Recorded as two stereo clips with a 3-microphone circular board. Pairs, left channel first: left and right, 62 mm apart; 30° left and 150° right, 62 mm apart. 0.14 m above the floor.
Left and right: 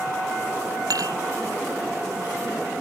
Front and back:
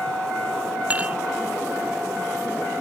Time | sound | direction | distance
0.9 | dishes clattering | 85° right | ?